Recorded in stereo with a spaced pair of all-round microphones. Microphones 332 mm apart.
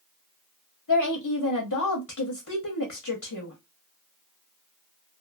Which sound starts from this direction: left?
A woman speaking, at 0.9 s.